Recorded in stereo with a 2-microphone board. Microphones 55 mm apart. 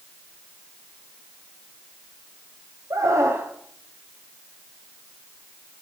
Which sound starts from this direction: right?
A scream, at 2.9 s.